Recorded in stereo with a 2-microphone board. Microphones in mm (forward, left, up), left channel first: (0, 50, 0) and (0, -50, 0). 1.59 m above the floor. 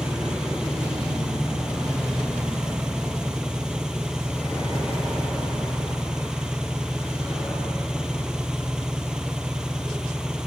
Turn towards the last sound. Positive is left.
turn(degrees=-5)  # may be behind; listen again after turning